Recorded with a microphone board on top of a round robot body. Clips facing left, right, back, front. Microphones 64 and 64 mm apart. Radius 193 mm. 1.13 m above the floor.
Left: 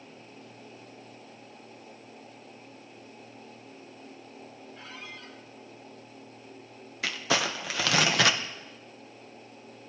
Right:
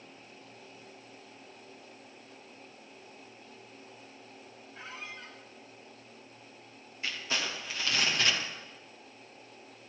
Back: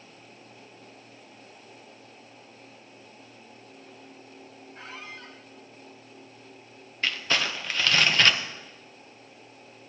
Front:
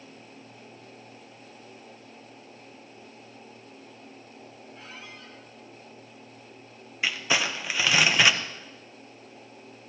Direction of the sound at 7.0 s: 80° left.